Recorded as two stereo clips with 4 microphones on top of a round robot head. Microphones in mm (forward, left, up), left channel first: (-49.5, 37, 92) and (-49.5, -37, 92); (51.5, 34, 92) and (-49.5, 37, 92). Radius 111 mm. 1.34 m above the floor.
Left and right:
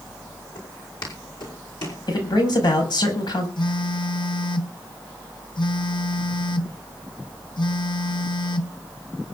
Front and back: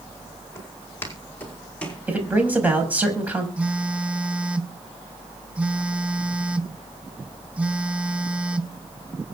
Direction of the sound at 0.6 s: 65° left.